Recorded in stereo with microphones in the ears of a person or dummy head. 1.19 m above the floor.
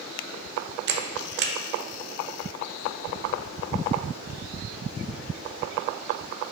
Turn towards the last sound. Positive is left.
turn(degrees=-60)  # may be behind; listen again after turning